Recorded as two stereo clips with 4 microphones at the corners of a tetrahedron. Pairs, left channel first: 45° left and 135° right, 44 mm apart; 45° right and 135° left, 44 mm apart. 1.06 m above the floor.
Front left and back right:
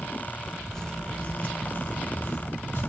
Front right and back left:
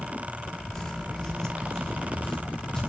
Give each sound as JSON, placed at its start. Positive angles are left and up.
{"t": 0.7, "sound": "footsteps", "azimuth_deg": 0, "distance_m": 1.0}